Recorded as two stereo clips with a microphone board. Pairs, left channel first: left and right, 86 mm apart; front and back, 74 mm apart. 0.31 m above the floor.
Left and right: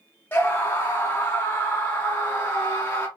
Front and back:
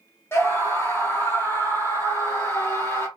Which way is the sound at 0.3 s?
30° left.